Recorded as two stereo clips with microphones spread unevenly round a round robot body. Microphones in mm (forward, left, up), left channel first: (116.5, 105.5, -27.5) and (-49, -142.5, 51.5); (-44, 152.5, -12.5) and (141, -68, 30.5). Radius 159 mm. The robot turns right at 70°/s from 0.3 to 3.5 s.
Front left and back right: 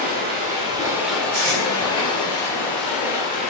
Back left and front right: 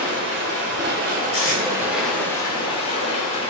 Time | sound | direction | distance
0.0 | running water | 65° right | 0.9 m
1.3 | tape being pulled | 170° left | 1.1 m